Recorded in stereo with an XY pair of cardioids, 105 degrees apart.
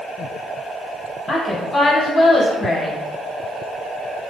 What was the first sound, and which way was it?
A woman speaking, 35° left.